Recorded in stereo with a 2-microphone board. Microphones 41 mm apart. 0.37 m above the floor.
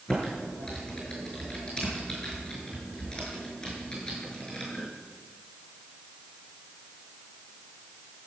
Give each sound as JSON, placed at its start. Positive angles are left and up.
{"t": 0.1, "sound": "typing on a keyboard", "side_deg": 20, "distance_m": 6.0}